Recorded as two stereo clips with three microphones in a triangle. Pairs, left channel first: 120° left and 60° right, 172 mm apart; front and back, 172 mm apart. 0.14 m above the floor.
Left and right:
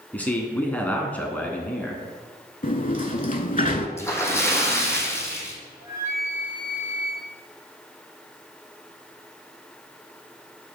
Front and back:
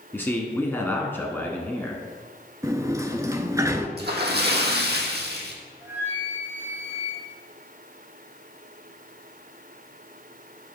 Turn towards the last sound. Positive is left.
turn(degrees=-115)